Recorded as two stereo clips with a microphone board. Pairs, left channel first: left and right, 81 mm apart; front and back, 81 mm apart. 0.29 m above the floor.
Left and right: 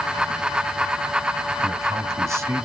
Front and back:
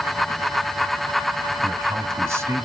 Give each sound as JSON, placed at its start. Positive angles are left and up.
{"t": 1.6, "sound": "a man speaking", "azimuth_deg": -130, "distance_m": 1.6}